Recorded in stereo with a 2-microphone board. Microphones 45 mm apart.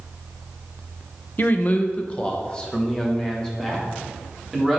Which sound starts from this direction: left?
A man speaking, at 1.4 s.